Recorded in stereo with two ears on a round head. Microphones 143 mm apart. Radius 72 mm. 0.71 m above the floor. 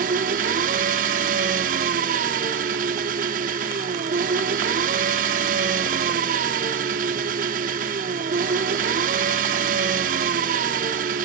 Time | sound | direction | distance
0.0 | an engine running | 50° right (ahead or behind) | 1.5 m